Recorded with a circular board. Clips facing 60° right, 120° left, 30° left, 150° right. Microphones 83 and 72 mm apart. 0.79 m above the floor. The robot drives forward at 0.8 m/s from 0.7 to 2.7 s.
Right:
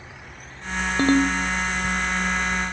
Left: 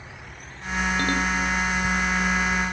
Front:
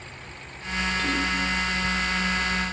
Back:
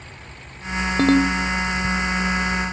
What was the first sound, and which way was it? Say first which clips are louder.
A ringtone: right 10 dB, back 13 dB; 120° right.